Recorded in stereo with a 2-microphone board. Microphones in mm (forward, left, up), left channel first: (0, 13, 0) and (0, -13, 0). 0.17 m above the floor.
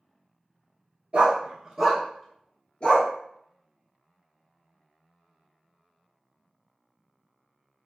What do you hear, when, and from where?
1.1 s a dog barking: 40° right (ahead or behind), 0.9 m; by 3.1 s 45° left (ahead or behind), 1.0 m